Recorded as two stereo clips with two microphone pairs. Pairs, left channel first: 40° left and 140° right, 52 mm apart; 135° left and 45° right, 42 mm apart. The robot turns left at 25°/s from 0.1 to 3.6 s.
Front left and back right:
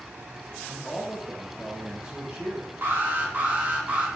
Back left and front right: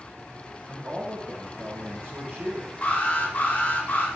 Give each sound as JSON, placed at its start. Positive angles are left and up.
{"t": 0.7, "sound": "a man speaking", "azimuth_deg": -40, "distance_m": 5.5}
{"t": 2.8, "sound": "an alarm", "azimuth_deg": -175, "distance_m": 3.5}